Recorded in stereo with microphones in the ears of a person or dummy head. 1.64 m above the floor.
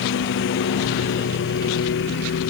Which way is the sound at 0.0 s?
70° left (ahead or behind).